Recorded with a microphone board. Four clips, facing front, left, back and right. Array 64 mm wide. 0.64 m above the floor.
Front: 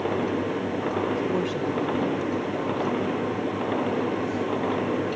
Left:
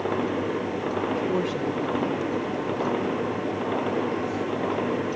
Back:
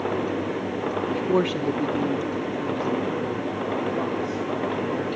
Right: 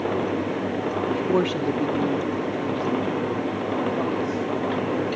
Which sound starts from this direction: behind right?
A woman speaking, at 1.1 s.